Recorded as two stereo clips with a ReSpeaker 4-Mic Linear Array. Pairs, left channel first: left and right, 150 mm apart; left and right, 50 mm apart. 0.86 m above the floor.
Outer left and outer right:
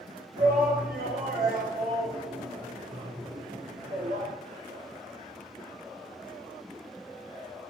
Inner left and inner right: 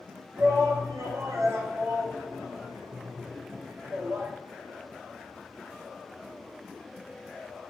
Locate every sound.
0.4 s a shout: 75° right (ahead or behind), 1.6 m